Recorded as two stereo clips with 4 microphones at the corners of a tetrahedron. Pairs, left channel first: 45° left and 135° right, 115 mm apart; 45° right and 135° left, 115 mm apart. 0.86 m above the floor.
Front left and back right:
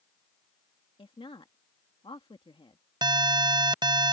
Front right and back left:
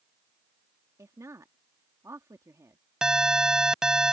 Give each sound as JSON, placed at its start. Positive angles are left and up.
{"t": 1.0, "sound": "a woman speaking", "azimuth_deg": 75}
{"t": 3.0, "sound": "an alarm", "azimuth_deg": -145}